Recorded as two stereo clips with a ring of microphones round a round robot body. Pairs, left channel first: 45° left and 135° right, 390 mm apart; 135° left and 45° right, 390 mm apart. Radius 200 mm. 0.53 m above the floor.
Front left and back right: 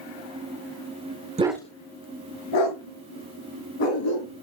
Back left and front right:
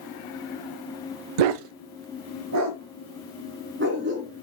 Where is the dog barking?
60° right, 0.6 m; by 4.4 s 20° left, 3.5 m.